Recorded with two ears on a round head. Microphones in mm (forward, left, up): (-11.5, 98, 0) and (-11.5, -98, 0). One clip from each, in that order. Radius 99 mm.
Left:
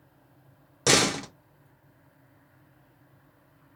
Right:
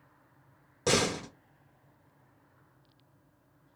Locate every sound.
0.9 s a door slam: 40° left (ahead or behind), 0.6 m